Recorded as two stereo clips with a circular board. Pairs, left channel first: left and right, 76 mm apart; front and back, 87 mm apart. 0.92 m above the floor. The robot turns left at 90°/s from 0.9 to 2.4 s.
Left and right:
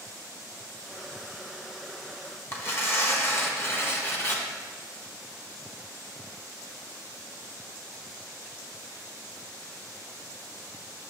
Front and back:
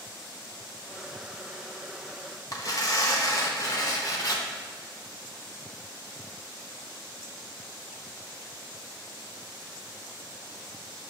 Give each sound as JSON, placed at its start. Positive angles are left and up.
{"t": 2.5, "sound": "tearing paper", "azimuth_deg": 40, "distance_m": 0.9}